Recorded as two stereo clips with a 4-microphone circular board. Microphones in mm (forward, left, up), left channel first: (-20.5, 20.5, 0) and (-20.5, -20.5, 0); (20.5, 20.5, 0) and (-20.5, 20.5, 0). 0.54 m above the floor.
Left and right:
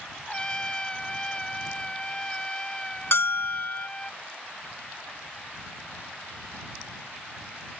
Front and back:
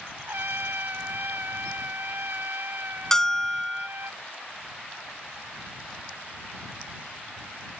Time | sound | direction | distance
0.3 | a trumpet | 160° left | ?
3.1 | a bell | 80° left | ?